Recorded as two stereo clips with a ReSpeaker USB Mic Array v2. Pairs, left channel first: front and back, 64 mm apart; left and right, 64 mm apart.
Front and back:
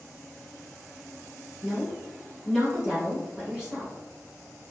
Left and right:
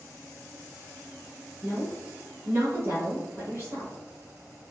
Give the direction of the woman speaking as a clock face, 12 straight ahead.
4 o'clock.